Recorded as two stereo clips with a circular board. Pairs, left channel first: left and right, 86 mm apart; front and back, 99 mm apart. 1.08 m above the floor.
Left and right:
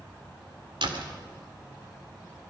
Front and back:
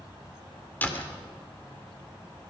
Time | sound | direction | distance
0.8 | a door slam | 70° right | 2.5 m